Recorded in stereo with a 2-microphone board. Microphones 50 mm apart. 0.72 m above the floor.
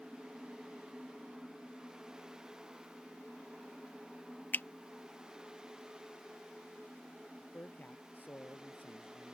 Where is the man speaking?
40° left (ahead or behind).